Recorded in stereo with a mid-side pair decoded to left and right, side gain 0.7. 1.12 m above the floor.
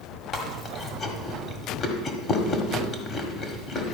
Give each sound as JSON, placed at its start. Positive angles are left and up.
{"t": 0.3, "sound": "chewing", "azimuth_deg": 35, "distance_m": 1.7}